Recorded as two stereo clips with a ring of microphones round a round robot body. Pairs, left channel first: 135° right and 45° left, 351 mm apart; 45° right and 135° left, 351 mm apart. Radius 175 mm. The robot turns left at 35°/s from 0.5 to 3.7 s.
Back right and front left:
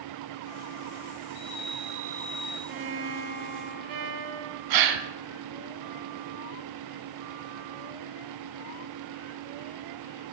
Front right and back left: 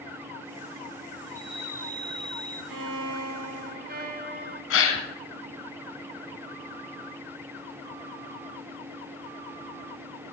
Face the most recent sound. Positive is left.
turn(degrees=10)